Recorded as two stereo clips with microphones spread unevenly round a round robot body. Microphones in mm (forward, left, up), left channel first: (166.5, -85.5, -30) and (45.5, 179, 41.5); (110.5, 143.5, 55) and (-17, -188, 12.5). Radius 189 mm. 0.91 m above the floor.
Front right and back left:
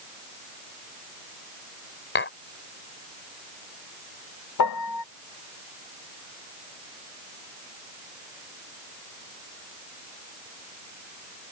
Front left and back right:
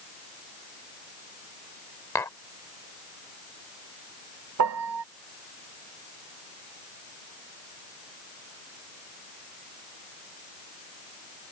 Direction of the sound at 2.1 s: 15° right.